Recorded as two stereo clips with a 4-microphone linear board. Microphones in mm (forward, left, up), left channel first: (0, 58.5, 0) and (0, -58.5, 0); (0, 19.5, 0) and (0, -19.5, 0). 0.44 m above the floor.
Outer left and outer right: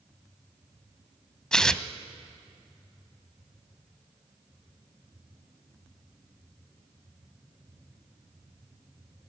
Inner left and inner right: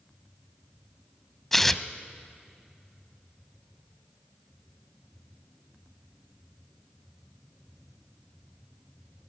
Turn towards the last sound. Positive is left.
turn(degrees=5)  # may be behind; listen again after turning